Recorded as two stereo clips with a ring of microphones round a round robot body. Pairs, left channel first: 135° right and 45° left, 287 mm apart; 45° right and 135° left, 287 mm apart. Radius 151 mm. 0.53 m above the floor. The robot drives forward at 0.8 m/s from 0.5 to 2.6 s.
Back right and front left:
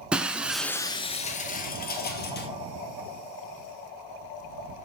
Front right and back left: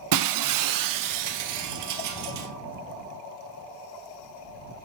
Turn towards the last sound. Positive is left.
turn(degrees=170)